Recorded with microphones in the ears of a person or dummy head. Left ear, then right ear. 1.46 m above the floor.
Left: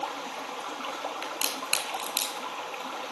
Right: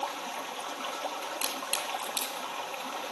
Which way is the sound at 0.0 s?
10° right (ahead or behind).